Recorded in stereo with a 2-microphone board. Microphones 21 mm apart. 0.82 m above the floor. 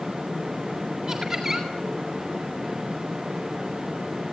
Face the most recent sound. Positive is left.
turn(degrees=-20)  # may be behind; listen again after turning